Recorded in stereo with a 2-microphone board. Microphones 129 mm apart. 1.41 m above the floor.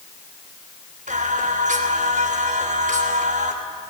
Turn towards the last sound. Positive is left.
turn(degrees=-75)  # may be behind; listen again after turning